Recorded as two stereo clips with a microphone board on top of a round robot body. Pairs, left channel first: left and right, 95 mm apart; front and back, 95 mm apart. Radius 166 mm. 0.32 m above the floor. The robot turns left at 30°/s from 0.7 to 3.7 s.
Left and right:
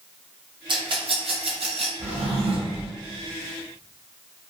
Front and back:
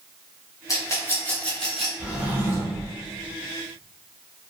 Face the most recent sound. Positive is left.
turn(degrees=-150)